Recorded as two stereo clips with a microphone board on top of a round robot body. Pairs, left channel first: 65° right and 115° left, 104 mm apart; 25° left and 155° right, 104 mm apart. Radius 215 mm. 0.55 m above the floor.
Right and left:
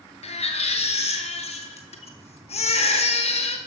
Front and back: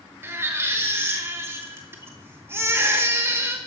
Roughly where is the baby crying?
Right.